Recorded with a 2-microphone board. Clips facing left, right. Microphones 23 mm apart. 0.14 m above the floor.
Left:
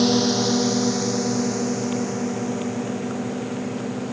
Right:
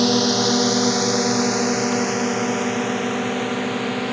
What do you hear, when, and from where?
0.0 s a drone: 10° right (ahead or behind); by 4.1 s 60° right (ahead or behind)